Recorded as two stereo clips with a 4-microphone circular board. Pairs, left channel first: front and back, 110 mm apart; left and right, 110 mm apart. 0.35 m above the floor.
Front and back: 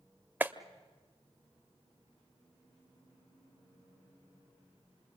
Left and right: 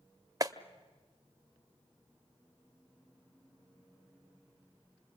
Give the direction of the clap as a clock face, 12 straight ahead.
4 o'clock.